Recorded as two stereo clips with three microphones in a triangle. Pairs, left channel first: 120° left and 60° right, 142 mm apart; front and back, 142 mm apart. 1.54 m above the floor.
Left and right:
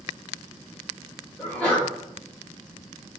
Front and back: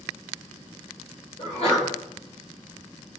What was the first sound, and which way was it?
A sneeze, 40° left.